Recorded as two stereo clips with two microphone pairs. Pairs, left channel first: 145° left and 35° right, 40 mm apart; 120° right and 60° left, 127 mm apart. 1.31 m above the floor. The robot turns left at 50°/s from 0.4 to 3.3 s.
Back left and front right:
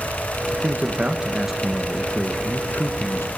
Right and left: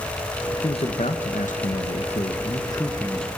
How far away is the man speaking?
About 1.7 m.